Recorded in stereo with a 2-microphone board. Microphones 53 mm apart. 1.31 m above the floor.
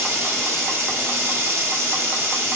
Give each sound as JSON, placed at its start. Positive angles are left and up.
{"t": 0.0, "sound": "running water", "side_deg": -55, "distance_m": 1.0}